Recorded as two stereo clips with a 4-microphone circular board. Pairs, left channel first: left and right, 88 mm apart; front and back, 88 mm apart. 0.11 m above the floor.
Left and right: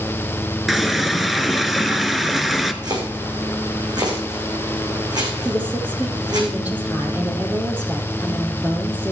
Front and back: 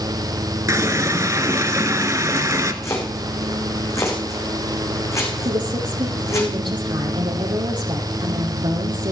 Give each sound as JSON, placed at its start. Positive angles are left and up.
{"t": 0.7, "sound": "a running tap", "azimuth_deg": 180, "distance_m": 1.0}
{"t": 2.8, "sound": "chopping", "azimuth_deg": -55, "distance_m": 5.5}
{"t": 5.5, "sound": "a woman speaking", "azimuth_deg": -160, "distance_m": 3.0}